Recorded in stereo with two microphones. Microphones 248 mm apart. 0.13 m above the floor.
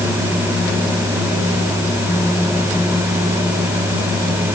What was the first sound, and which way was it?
Only background noise.